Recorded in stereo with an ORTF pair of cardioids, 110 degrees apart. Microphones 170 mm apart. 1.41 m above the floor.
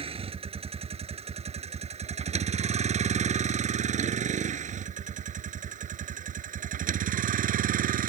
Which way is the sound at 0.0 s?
35° right.